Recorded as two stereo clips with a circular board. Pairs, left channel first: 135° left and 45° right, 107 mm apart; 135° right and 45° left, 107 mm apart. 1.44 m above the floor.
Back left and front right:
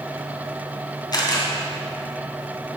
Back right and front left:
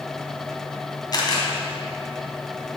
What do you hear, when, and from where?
1.1 s a camera shutter: straight behind, 2.5 m